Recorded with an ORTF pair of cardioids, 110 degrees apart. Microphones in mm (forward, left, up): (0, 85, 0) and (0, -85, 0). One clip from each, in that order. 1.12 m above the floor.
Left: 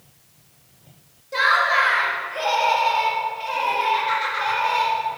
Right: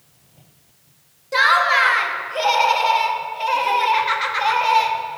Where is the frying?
I don't hear frying.